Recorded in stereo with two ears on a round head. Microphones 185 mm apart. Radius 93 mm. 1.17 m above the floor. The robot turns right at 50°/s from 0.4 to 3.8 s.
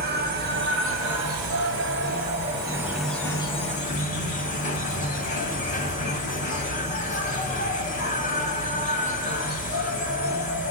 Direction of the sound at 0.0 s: 130° right.